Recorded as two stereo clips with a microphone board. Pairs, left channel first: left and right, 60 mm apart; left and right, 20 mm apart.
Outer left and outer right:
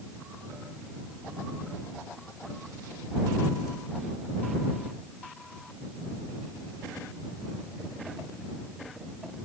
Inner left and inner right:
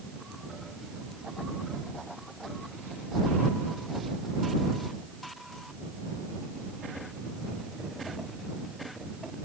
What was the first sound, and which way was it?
Only background noise.